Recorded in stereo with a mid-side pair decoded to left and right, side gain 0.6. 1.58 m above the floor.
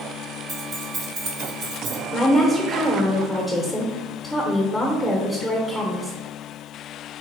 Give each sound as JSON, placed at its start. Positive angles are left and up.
{"t": 0.5, "sound": "keys jangling", "azimuth_deg": -50, "distance_m": 1.5}
{"t": 2.1, "sound": "a woman speaking", "azimuth_deg": -5, "distance_m": 1.1}